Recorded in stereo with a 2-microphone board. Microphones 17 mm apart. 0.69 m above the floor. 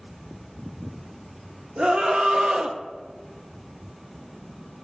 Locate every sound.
1.8 s a scream: 65° right (ahead or behind), 1.2 m; by 2.8 s 45° right (ahead or behind), 0.7 m